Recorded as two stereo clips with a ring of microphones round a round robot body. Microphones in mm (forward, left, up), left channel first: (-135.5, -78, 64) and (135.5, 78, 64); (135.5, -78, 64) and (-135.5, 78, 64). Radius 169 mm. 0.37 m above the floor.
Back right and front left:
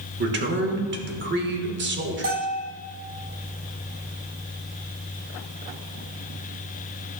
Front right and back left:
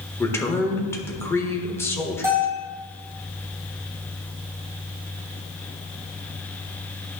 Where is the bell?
70° left, 4 m.